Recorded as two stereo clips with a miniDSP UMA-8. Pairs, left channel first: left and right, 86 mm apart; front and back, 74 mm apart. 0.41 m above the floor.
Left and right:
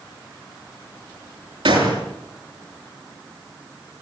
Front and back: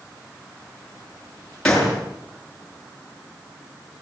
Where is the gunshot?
80° right, 7 m.